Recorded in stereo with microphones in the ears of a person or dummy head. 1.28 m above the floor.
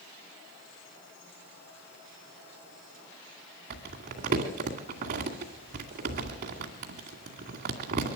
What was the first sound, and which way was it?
Crumpling, 40° right (ahead or behind).